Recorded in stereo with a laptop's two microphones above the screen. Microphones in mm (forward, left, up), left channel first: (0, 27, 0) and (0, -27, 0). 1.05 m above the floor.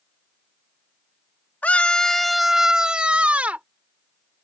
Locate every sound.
1.6 s a scream: 30° left (ahead or behind); by 3.6 s 30° right (ahead or behind)